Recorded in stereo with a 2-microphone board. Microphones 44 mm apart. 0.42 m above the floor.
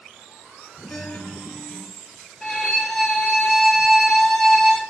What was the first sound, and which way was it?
A guitar, 55° left (ahead or behind).